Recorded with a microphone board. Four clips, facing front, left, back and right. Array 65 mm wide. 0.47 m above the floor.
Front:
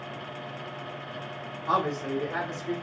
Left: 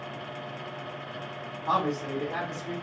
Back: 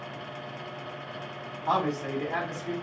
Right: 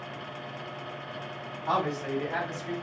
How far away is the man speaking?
About 1.7 m.